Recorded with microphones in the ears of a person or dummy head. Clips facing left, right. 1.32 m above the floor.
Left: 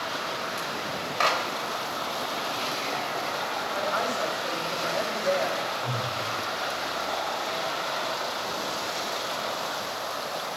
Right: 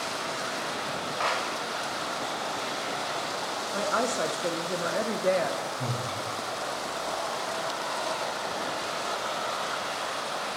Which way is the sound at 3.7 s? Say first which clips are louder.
Right 2 dB; 40° right (ahead or behind).